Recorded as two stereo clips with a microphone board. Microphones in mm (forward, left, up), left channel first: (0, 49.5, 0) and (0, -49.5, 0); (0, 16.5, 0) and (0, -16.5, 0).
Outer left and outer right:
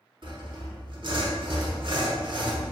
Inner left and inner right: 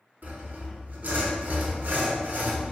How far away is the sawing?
About 0.9 m.